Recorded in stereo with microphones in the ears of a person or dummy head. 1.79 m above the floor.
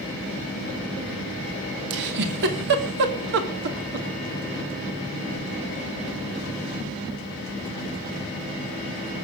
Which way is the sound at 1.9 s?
60° right (ahead or behind).